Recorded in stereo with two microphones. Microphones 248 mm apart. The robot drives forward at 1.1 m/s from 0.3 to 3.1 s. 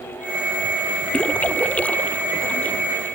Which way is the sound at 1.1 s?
5° left (ahead or behind).